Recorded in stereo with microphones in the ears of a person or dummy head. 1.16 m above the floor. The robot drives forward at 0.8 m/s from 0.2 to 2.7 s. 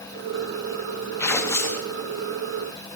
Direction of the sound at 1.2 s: 15° left (ahead or behind).